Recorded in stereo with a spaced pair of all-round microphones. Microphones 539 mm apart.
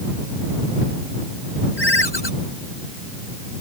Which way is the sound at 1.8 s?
50° left (ahead or behind).